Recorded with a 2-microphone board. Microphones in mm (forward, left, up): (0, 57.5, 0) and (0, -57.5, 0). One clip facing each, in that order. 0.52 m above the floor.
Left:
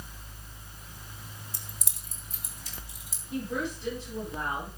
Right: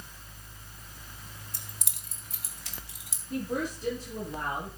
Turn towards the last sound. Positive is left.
turn(degrees=-40)  # may be behind; listen again after turning